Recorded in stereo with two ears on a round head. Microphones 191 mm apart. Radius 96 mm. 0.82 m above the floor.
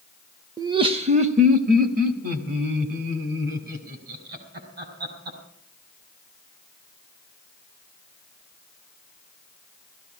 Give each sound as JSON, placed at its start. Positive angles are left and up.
{"t": 0.6, "sound": "laughter", "side_deg": -15, "distance_m": 0.7}